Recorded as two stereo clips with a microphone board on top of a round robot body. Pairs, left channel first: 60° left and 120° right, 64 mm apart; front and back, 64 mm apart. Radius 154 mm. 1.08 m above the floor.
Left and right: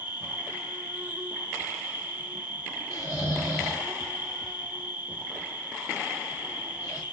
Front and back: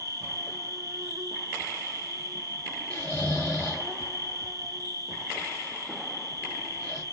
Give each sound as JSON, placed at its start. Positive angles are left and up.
{"t": 0.0, "sound": "an insect", "azimuth_deg": 180, "distance_m": 1.1}
{"t": 2.9, "sound": "snoring", "azimuth_deg": 80, "distance_m": 0.8}